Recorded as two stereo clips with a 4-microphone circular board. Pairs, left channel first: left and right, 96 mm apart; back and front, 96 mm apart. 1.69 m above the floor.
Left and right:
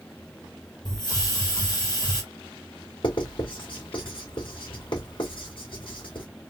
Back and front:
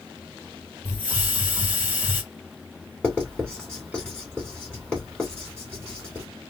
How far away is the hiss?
About 1.6 m.